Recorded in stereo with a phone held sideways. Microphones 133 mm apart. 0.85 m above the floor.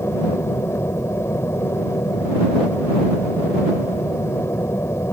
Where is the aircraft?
20° left (ahead or behind).